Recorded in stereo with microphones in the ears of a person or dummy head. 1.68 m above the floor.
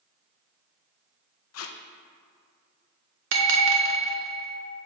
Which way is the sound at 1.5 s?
85° left.